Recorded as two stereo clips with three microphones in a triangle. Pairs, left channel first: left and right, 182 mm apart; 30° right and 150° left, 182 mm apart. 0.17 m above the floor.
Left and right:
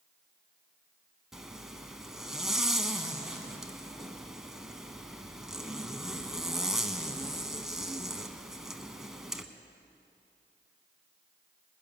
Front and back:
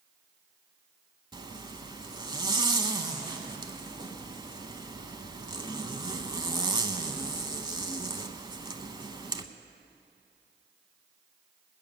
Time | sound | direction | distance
1.3 | a zipper | 175° right | 0.7 m